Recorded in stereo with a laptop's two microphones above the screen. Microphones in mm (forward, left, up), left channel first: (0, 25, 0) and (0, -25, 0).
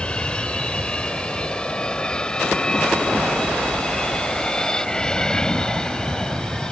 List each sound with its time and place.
0.0 s an aircraft: 20° left (ahead or behind); by 6.7 s 15° left (ahead or behind)